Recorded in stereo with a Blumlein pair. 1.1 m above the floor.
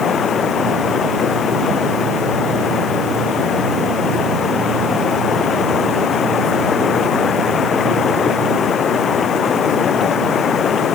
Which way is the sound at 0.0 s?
20° left.